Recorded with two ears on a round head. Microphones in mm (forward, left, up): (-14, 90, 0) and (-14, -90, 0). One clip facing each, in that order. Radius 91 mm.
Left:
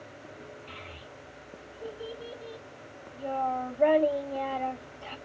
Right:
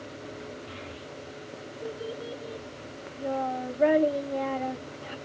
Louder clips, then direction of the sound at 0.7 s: Right 6 dB; 15° right (ahead or behind).